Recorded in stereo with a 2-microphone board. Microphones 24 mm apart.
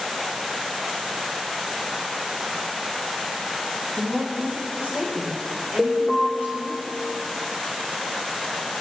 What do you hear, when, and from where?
4.0 s a woman speaking: 70° right (ahead or behind), 6.5 m; by 6.8 s 75° right (ahead or behind), 6 m
5.8 s an alarm: 15° right (ahead or behind), 1.7 m